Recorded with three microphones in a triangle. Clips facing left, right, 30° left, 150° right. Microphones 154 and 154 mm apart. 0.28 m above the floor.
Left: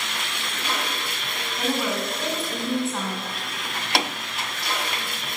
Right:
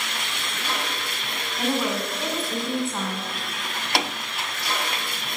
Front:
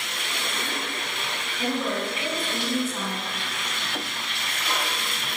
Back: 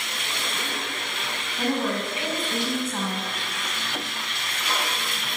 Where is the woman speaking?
Straight behind, 1.9 m.